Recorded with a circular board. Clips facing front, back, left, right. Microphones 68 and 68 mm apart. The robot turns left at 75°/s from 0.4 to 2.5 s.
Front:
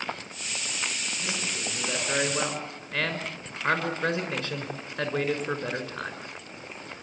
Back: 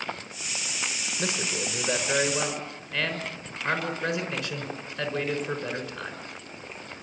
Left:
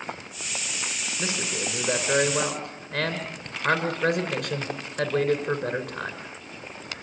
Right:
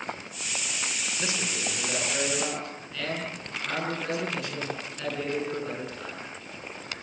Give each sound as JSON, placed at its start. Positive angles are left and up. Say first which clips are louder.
{"t": 1.2, "sound": "a man speaking", "louder": "back 5 dB, left 3 dB", "azimuth_deg": 155, "distance_m": 6.0}